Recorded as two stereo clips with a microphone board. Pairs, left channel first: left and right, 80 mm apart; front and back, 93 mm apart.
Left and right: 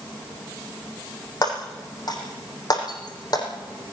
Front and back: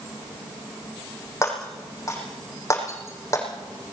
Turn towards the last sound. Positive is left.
turn(degrees=60)